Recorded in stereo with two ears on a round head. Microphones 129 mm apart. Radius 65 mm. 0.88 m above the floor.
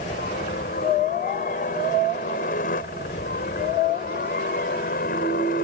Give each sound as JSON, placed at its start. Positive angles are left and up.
{"t": 0.0, "sound": "a helicopter", "side_deg": 55}